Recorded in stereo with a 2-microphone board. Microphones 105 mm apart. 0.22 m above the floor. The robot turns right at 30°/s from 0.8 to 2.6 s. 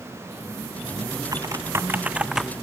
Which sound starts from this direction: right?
Typing on a keyboard, at 1.3 s.